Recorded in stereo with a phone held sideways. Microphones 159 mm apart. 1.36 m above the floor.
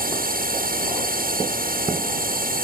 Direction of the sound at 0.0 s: 65° right (ahead or behind).